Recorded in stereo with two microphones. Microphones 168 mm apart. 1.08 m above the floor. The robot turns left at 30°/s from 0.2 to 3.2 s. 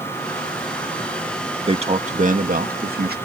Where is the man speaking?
35° right; by 3.2 s 80° right.